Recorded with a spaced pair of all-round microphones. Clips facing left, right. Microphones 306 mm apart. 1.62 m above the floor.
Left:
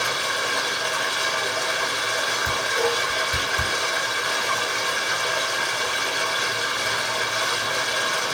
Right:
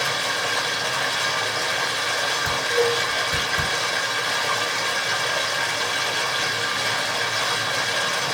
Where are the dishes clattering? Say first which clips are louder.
Right 4 dB; 25° right (ahead or behind), 2 m.